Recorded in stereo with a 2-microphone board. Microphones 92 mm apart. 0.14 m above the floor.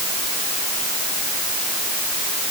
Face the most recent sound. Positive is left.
No sound to turn to.